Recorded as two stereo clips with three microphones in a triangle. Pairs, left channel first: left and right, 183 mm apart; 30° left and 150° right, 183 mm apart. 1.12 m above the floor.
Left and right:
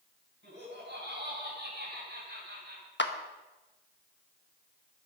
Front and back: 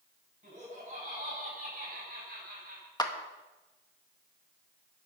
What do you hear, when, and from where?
0.4 s laughter: 100° right, 8.5 m; by 2.9 s 120° right, 5 m
3.0 s a clap: 95° left, 1.2 m